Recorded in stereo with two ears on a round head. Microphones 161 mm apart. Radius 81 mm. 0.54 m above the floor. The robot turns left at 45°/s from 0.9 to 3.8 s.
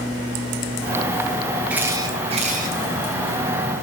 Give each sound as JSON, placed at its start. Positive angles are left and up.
{"t": 1.7, "sound": "a camera shutter", "azimuth_deg": -5, "distance_m": 6.0}